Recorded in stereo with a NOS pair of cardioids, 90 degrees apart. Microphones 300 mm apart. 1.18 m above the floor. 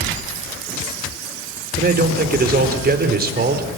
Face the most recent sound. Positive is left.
turn(degrees=-30)